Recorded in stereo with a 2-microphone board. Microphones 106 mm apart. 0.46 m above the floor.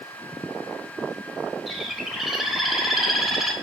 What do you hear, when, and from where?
1.7 s a bird: 5° right (ahead or behind), 1.0 m